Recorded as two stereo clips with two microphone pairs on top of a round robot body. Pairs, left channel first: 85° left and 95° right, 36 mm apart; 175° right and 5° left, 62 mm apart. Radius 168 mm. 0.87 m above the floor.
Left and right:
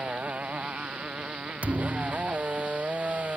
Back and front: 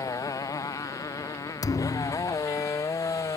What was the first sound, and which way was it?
A motorcycle, 150° right.